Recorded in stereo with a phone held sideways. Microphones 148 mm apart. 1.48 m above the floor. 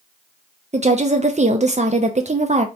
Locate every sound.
0.7 s a woman speaking: 50° right (ahead or behind), 0.6 m